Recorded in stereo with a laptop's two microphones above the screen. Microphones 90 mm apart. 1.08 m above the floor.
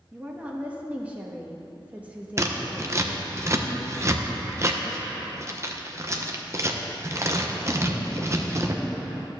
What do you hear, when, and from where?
0.1 s a woman speaking: 15° right (ahead or behind), 1.1 m
2.4 s scissors: 35° right (ahead or behind), 0.8 m